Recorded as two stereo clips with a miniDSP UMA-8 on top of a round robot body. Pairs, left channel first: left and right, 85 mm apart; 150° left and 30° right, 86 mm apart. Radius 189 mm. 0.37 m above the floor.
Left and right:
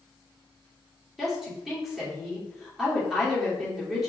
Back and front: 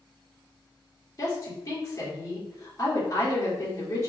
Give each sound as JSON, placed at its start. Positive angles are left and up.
{"t": 1.2, "sound": "a woman speaking", "azimuth_deg": -175, "distance_m": 1.9}